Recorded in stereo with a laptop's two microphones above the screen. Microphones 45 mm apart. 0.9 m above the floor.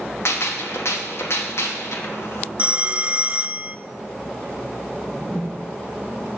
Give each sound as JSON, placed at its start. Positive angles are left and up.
{"t": 0.2, "sound": "a gunshot", "side_deg": 65, "distance_m": 1.2}
{"t": 2.6, "sound": "a phone ringing", "side_deg": -25, "distance_m": 0.5}
{"t": 4.9, "sound": "a whoosh", "side_deg": 10, "distance_m": 1.2}